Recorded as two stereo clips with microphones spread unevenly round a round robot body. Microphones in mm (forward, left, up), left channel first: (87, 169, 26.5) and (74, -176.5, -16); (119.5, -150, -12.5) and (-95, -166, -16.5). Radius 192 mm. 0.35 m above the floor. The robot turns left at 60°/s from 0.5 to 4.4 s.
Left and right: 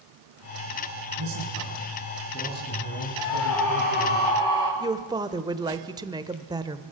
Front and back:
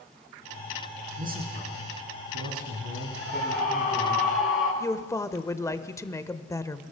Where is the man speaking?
120° right, 4 m; by 4.2 s 60° left, 4 m.